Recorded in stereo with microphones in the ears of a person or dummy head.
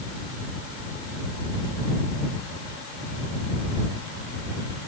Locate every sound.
Only background noise.